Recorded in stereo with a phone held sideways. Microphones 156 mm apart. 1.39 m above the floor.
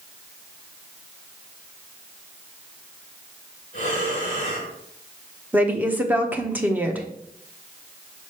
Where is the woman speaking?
10° right (ahead or behind), 1.0 m.